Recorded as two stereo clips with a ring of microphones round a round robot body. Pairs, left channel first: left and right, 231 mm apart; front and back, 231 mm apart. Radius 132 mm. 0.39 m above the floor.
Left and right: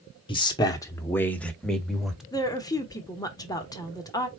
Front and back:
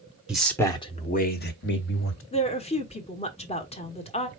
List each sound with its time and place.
0.3 s a man speaking: 100° left, 0.9 m; by 2.2 s straight ahead, 1.5 m
2.3 s a woman speaking: 30° left, 1.1 m